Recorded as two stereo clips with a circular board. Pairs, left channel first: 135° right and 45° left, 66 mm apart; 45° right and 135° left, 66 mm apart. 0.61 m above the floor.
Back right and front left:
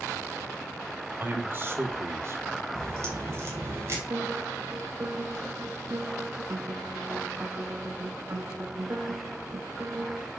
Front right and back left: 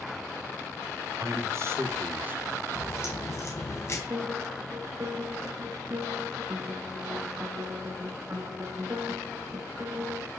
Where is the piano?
85° left, 2 m.